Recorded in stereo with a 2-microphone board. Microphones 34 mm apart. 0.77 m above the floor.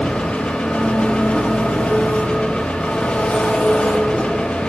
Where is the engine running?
35° left (ahead or behind), 0.8 m.